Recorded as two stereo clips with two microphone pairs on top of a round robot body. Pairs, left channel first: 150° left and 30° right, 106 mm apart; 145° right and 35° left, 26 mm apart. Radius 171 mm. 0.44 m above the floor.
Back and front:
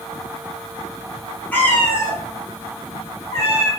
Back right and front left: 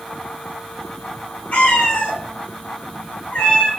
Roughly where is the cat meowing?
Behind right.